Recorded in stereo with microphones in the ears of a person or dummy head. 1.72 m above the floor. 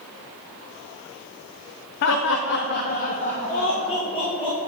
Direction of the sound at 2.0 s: 50° left (ahead or behind).